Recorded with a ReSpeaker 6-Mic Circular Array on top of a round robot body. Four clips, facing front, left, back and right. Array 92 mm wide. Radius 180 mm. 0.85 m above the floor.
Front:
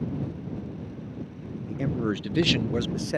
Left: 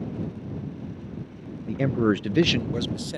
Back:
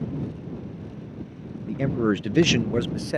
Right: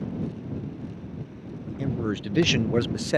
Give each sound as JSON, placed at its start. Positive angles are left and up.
{"t": 1.7, "sound": "a man speaking", "azimuth_deg": 110}